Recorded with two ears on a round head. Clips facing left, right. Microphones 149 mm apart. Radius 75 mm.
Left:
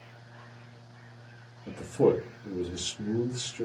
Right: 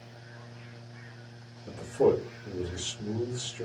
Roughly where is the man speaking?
Left.